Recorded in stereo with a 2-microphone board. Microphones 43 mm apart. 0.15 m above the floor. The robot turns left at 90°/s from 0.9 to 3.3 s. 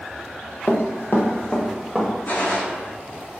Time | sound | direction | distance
0.7 | running footsteps | 45° left (ahead or behind) | 1.1 m
2.2 | a gunshot | 50° left | 1.5 m